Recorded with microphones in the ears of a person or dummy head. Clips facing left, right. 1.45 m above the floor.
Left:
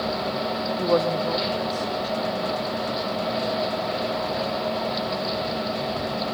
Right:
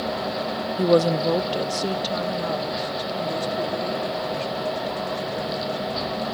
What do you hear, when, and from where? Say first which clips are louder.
0.8 s a woman speaking: right 4 dB; 30° right (ahead or behind), 0.7 m; by 6.3 s 85° right, 5.5 m